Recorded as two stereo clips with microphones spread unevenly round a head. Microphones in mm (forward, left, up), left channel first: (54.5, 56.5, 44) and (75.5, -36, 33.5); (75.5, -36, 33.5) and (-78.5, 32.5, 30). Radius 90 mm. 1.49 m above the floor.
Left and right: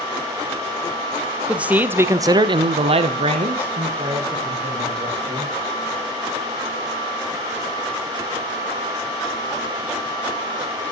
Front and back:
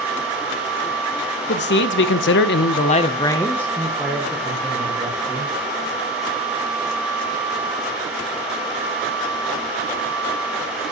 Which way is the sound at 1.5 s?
Straight ahead.